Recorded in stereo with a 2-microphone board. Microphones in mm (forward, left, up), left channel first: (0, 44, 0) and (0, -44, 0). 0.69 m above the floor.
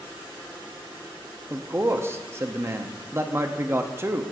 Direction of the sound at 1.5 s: 25° right (ahead or behind).